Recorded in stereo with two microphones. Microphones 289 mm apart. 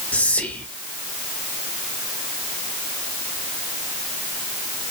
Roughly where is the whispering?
Centre.